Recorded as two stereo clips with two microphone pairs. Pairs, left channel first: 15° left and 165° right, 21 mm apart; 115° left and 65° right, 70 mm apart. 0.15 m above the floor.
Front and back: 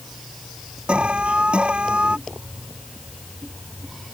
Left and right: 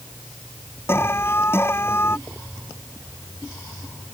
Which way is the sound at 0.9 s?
170° left.